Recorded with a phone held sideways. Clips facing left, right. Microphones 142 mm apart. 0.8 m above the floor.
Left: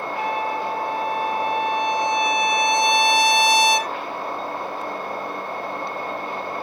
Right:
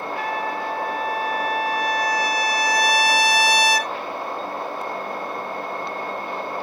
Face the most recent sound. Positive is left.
turn(degrees=25)  # may be behind; listen again after turning